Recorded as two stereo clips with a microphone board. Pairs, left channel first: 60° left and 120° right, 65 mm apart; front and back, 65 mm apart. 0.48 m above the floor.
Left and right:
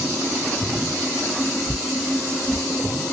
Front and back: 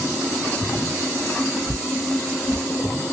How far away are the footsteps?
About 1.2 m.